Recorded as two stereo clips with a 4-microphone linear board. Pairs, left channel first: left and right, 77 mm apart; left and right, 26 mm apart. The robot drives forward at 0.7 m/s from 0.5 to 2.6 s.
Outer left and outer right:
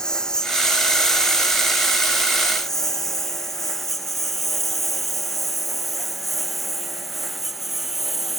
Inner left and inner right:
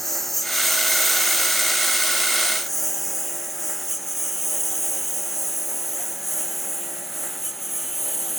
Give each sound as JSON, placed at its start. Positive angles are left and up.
{"t": 0.0, "sound": "a lawn mower", "side_deg": 10}